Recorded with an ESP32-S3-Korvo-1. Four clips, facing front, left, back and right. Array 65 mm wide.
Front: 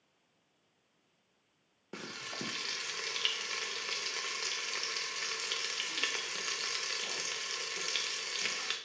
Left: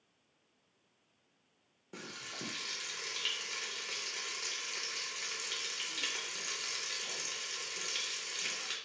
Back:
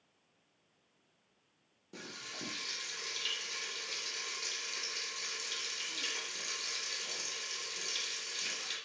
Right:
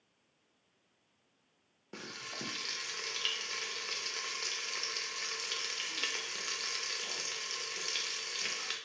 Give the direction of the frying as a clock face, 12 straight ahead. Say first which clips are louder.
Right 1 dB, front 4 dB; 12 o'clock.